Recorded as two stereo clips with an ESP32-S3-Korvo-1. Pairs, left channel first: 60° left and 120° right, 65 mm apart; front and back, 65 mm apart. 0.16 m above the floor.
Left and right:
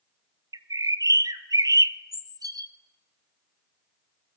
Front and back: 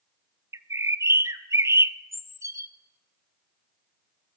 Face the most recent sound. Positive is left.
turn(degrees=-140)